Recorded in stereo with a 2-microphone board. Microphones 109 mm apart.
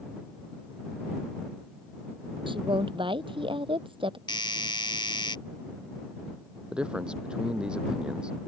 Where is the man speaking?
10° right (ahead or behind).